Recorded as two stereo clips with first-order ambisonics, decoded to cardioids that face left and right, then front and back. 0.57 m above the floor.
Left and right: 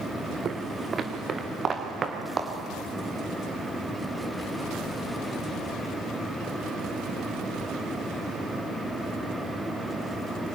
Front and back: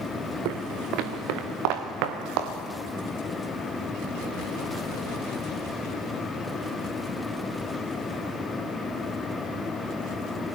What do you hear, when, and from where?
0.5 s footsteps: 150° right, 1.9 m; by 2.5 s 160° right, 3 m